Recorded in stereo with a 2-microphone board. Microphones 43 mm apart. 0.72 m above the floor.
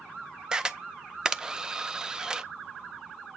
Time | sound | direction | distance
0.5 | a camera shutter | 15° right (ahead or behind) | 0.5 m